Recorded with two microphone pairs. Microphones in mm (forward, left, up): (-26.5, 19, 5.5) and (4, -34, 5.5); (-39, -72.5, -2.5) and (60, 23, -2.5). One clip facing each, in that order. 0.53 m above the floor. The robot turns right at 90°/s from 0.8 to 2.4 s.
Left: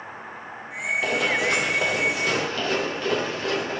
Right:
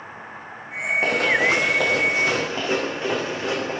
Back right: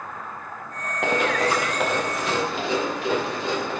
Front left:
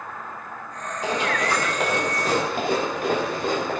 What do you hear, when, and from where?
1.0 s running footsteps: 115° right, 3.5 m; by 3.8 s 5° left, 5.5 m